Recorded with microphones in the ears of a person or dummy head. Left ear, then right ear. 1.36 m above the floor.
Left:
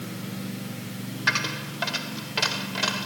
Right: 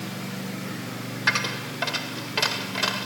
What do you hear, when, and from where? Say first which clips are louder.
1.3 s a dropped coin: right 1 dB; 15° right (ahead or behind)